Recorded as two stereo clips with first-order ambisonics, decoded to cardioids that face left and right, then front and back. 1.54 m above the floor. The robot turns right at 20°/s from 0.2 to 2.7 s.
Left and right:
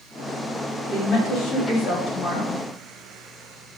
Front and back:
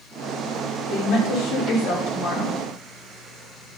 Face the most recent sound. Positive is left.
turn(degrees=40)